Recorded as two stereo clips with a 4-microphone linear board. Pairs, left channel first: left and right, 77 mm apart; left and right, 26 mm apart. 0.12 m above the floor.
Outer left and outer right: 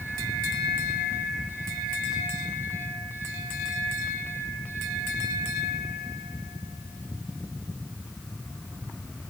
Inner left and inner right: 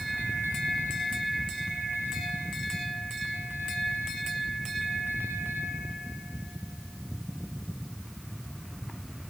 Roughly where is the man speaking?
I don't hear a man speaking.